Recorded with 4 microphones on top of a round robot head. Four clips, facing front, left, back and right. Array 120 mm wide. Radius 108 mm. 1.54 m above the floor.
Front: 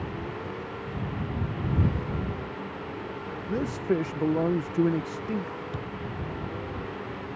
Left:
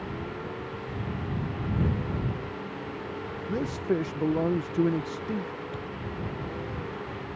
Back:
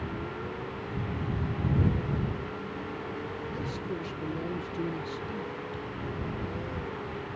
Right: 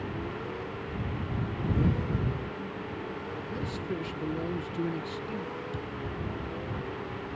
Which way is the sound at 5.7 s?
10° right.